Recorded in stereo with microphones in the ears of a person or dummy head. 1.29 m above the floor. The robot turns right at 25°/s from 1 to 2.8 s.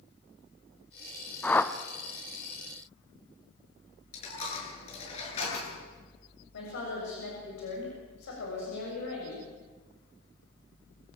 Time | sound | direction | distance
1.4 | a whoosh | 10° left (ahead or behind) | 1.0 m
4.1 | a dropped coin | 40° left (ahead or behind) | 7.5 m
6.5 | a woman speaking | 70° left (ahead or behind) | 7 m